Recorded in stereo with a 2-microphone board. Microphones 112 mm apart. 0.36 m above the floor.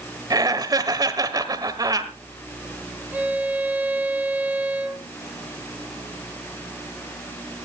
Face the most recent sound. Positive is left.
turn(degrees=-15)  # may be behind; listen again after turning